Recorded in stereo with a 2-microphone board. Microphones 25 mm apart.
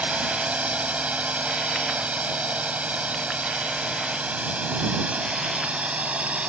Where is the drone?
70° right (ahead or behind); by 6.5 s 60° right (ahead or behind).